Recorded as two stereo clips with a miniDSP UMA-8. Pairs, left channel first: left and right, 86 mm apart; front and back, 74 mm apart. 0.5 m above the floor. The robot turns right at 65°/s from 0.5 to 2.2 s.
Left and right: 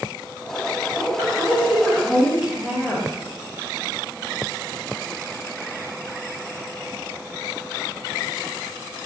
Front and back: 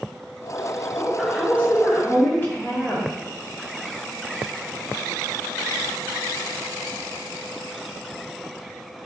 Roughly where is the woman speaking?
Right.